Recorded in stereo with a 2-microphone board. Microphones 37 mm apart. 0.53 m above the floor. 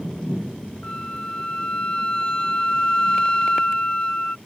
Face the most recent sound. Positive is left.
turn(degrees=30)  # may be behind; listen again after turning